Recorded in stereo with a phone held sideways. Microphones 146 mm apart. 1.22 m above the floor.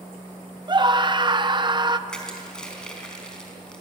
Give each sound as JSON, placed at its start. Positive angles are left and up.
{"t": 0.7, "sound": "a scream", "side_deg": -30, "distance_m": 0.9}
{"t": 2.1, "sound": "crushing", "side_deg": 5, "distance_m": 4.5}